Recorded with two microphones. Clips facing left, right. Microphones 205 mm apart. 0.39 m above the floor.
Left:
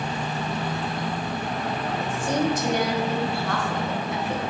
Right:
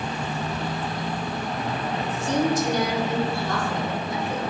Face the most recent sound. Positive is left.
turn(degrees=70)  # may be behind; listen again after turning